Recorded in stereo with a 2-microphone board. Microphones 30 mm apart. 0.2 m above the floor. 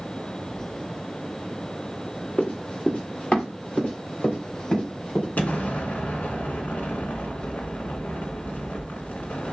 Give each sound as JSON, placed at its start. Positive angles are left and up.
{"t": 2.4, "sound": "running footsteps", "side_deg": 35, "distance_m": 2.0}
{"t": 5.4, "sound": "an explosion", "side_deg": 60, "distance_m": 1.4}